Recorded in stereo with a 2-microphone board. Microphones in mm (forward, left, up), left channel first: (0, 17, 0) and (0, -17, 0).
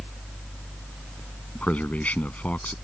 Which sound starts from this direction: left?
A man speaking, at 1.6 s.